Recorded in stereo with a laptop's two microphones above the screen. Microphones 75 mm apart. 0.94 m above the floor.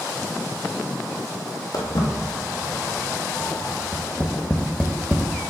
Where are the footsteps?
60° left (ahead or behind), 1.8 m; by 3.8 s 5° left (ahead or behind), 1.4 m.